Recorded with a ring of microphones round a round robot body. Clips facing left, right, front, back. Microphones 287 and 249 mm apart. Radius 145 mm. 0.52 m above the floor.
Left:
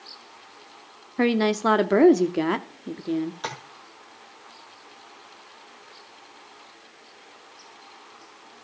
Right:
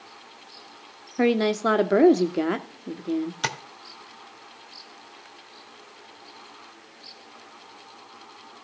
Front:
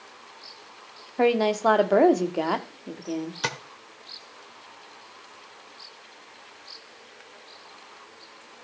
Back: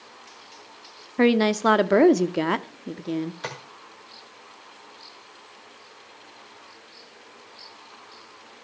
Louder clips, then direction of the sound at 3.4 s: Right 2 dB, front 2 dB; 55° right.